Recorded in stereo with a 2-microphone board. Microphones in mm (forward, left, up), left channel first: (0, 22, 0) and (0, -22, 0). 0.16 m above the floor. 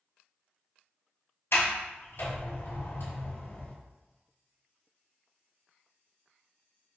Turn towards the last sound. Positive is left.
turn(degrees=65)  # may be behind; listen again after turning